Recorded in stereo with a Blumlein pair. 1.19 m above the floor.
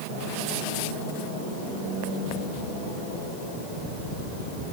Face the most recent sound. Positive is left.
No sound to turn to.